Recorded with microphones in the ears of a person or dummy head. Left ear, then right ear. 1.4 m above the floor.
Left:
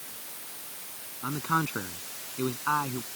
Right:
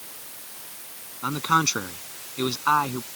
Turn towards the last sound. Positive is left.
turn(degrees=-85)